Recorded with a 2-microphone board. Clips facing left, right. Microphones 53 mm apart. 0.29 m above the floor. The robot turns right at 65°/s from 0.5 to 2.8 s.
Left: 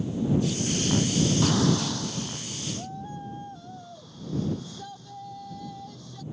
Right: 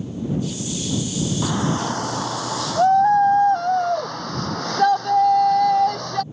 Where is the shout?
170° right; by 6.2 s 80° right.